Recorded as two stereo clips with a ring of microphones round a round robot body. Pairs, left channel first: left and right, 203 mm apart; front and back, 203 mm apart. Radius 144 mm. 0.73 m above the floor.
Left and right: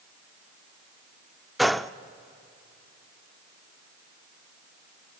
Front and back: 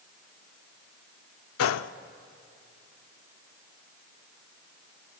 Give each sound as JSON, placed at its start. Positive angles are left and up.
{"t": 1.6, "sound": "a gunshot", "azimuth_deg": 0, "distance_m": 0.6}